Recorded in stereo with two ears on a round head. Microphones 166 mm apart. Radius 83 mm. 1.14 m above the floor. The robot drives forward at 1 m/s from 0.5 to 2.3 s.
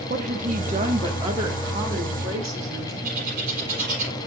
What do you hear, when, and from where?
0.1 s a woman speaking: 45° right (ahead or behind), 1.3 m; by 2.9 s 20° right (ahead or behind), 3 m
3.0 s a bird: 45° right (ahead or behind), 4 m